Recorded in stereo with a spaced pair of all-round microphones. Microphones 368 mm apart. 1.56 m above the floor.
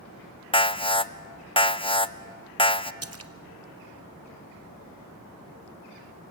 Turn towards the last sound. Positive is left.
turn(degrees=-40)  # may be behind; listen again after turning